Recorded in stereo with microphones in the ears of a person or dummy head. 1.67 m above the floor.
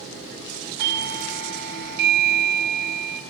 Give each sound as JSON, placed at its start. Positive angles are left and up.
{"t": 0.8, "sound": "a doorbell", "side_deg": -65, "distance_m": 1.4}